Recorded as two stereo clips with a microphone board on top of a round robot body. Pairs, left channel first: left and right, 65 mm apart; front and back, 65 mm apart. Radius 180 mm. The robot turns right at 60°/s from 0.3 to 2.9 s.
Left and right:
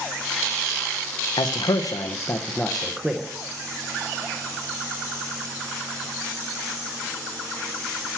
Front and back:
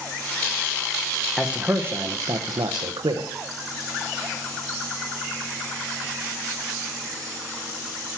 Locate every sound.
1.4 s a man speaking: 90° left, 0.7 m; by 3.3 s 175° right, 0.7 m